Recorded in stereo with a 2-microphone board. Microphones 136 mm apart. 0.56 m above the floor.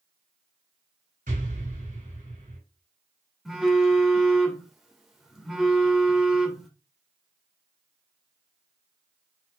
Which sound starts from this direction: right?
An explosion, at 1.3 s.